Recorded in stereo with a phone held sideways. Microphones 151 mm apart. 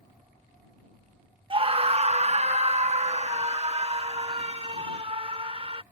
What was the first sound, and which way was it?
A scream, 35° right (ahead or behind).